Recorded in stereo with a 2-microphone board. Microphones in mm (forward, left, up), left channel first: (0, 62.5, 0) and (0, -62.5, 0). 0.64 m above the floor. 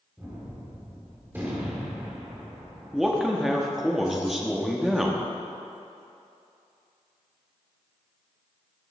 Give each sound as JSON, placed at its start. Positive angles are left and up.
{"t": 0.2, "sound": "a gunshot", "side_deg": -15, "distance_m": 1.4}
{"t": 2.9, "sound": "a man speaking", "side_deg": -5, "distance_m": 0.8}